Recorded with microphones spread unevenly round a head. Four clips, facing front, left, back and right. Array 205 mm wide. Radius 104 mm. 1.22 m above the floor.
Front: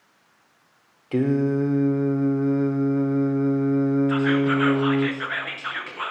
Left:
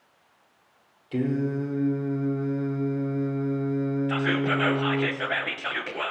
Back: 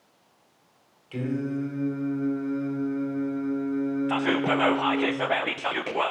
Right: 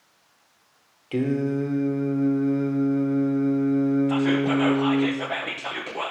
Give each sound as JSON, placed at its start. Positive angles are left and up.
{"t": 1.1, "sound": "singing", "azimuth_deg": -15, "distance_m": 1.4}
{"t": 4.1, "sound": "whispering", "azimuth_deg": -175, "distance_m": 0.7}